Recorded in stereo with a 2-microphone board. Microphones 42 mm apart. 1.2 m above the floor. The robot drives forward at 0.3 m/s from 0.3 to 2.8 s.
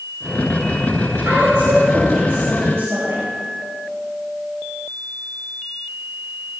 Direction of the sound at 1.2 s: 80° right.